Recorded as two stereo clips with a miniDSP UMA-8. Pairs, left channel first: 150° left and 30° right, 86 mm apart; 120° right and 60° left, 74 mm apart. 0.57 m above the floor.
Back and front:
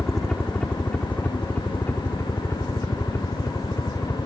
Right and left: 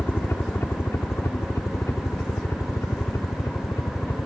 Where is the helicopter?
130° right; by 4.3 s 165° right.